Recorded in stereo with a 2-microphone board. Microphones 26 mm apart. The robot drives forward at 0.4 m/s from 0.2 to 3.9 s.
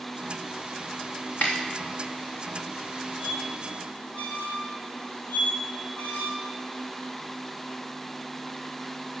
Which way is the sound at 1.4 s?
60° left (ahead or behind).